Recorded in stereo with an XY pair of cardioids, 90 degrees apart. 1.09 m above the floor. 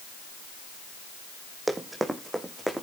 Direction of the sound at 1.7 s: 25° right.